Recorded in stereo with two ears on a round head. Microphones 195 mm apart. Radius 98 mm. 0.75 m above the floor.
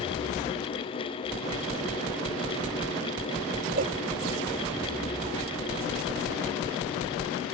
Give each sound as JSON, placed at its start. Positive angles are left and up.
{"t": 3.8, "sound": "a cowbell", "side_deg": -40}